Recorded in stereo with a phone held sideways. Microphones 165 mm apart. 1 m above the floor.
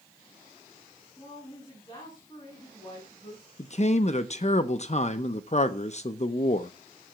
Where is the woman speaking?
30° left (ahead or behind), 9 m.